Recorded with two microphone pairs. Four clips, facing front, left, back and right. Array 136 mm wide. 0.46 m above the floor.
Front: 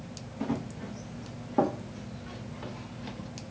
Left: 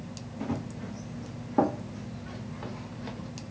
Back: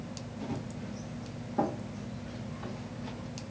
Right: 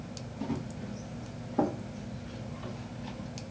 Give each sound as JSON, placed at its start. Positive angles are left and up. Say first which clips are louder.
{"t": 0.4, "sound": "running footsteps", "louder": "left 2 dB, front 6 dB", "azimuth_deg": 30, "distance_m": 1.2}